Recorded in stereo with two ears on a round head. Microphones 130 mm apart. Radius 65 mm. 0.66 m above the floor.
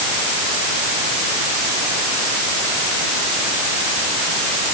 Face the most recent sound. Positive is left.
No sound to turn to.